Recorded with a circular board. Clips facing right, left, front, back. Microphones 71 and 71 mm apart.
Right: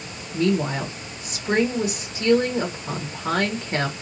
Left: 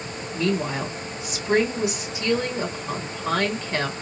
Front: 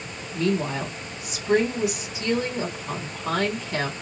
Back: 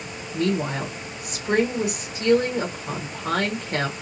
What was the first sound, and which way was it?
A woman speaking, 140° right.